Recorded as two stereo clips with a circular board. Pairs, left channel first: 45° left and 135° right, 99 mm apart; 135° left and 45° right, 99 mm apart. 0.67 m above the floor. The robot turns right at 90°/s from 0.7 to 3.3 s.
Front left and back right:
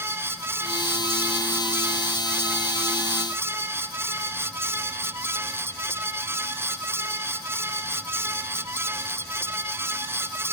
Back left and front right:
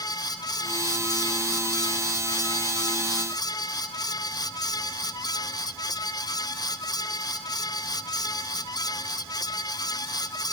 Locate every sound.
Only background noise.